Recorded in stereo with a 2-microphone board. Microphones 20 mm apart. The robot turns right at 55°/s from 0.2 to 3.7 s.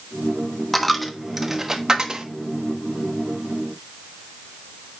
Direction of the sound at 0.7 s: 15° left (ahead or behind).